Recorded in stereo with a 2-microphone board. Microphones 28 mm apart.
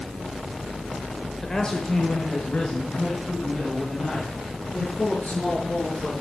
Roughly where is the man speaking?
Centre.